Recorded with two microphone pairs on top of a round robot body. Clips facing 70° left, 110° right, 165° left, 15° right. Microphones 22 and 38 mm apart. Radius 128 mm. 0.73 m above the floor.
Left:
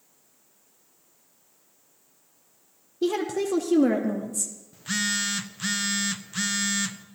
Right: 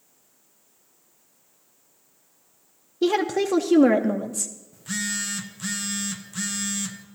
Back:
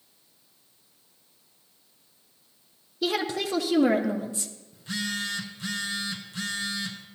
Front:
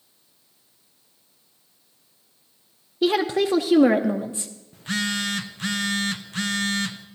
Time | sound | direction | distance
3.0 | a woman speaking | 75° right | 0.7 m
4.7 | a phone buzzing | 5° left | 0.5 m